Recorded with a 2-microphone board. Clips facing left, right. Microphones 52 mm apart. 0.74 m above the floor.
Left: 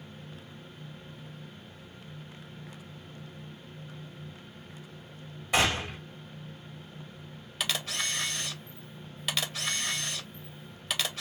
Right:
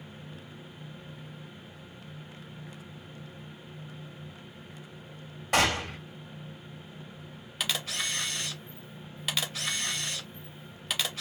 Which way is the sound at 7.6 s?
Centre (ahead or behind).